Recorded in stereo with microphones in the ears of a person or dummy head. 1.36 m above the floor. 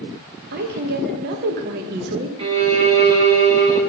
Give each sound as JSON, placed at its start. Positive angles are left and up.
{"t": 0.5, "sound": "a woman speaking", "side_deg": -60, "distance_m": 1.3}
{"t": 2.4, "sound": "a violin", "side_deg": -25, "distance_m": 1.3}